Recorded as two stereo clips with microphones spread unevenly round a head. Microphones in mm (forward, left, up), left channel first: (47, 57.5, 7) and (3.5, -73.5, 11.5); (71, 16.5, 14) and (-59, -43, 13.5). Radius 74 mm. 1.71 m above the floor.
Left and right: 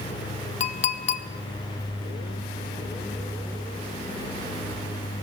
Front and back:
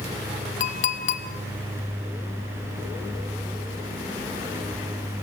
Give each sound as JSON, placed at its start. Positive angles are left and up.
{"t": 0.6, "sound": "a clink", "azimuth_deg": 50, "distance_m": 1.0}